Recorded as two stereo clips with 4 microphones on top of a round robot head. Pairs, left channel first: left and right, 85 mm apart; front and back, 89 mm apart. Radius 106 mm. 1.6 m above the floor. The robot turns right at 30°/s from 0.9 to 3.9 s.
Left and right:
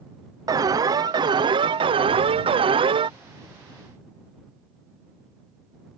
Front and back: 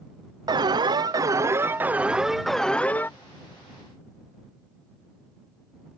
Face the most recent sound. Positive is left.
turn(degrees=-45)